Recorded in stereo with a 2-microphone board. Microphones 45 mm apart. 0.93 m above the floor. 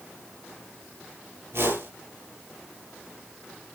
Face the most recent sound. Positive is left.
turn(degrees=-65)  # may be behind; listen again after turning